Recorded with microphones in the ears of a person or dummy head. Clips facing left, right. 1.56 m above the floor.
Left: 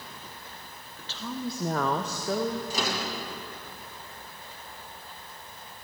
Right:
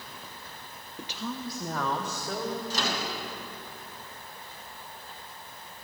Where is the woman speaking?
20° right (ahead or behind), 0.5 m; by 2.6 s 70° left (ahead or behind), 1.1 m.